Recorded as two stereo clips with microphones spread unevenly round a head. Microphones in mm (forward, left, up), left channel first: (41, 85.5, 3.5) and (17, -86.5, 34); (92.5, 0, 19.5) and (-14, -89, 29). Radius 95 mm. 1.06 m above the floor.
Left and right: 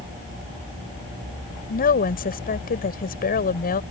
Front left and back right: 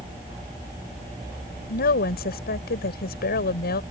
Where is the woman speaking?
45° left.